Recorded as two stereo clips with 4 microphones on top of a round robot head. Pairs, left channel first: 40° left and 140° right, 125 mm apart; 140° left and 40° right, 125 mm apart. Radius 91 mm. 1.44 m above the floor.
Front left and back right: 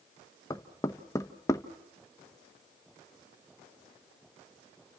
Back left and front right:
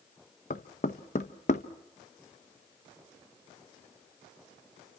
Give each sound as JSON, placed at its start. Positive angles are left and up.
{"t": 0.5, "sound": "knocking", "azimuth_deg": 105, "distance_m": 0.8}